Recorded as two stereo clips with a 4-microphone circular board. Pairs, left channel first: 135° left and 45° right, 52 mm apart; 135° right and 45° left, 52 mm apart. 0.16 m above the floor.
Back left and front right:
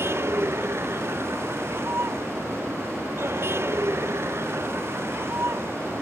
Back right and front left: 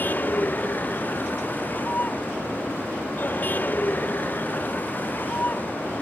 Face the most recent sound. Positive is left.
turn(degrees=-80)